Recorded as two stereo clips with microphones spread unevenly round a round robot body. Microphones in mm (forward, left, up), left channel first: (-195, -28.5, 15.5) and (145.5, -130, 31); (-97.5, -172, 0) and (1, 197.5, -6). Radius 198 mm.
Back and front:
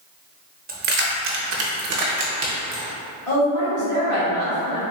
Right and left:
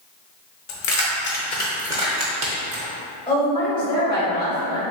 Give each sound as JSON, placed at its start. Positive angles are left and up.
{"t": 0.7, "sound": "keys jangling", "azimuth_deg": -80, "distance_m": 0.8}
{"t": 3.3, "sound": "a woman speaking", "azimuth_deg": 180, "distance_m": 1.7}